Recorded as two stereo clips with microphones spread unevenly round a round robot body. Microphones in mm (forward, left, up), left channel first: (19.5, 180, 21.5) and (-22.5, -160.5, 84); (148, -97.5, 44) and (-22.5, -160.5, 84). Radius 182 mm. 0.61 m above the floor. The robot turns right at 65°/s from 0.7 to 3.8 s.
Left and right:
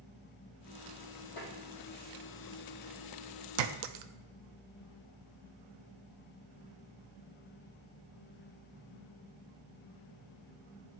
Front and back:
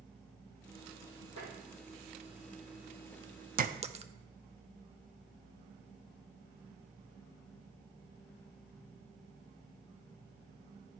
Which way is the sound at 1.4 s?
65° left.